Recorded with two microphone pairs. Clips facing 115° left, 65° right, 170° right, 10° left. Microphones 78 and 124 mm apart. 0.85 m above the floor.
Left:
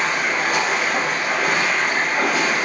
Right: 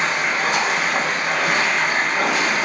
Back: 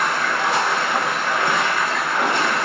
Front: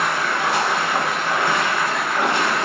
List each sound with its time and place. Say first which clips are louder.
0.0 s running water: even, even; 75° right, 1.3 m